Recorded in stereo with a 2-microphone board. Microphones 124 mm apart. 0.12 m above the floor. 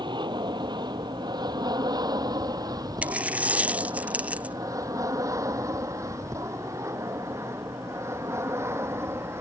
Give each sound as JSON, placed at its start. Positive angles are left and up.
{"t": 0.0, "sound": "an aircraft", "side_deg": -35}
{"t": 3.0, "sound": "a dropped coin", "side_deg": -10}